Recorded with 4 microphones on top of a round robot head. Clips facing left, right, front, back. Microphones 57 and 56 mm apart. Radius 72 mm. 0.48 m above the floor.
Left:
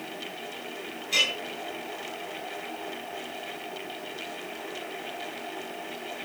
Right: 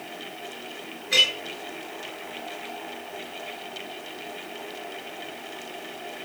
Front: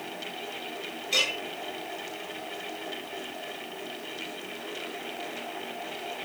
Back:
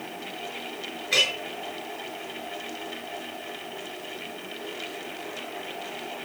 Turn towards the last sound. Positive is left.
turn(degrees=-130)